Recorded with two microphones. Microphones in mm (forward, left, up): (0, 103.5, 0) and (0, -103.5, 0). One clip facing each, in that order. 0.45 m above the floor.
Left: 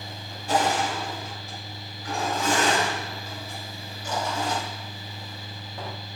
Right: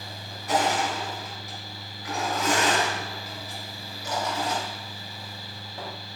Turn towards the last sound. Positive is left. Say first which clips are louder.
# left 1 dB
turn(degrees=30)  # may be behind; listen again after turning